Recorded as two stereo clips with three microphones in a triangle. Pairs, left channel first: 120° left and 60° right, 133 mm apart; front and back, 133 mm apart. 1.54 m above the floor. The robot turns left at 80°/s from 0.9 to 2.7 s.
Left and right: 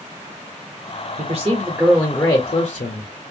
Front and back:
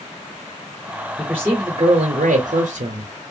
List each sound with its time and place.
1.2 s a man speaking: 85° right, 0.6 m; by 3.1 s 150° left, 0.6 m